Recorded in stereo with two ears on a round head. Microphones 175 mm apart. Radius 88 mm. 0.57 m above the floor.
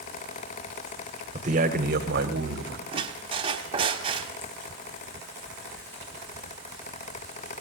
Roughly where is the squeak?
Right.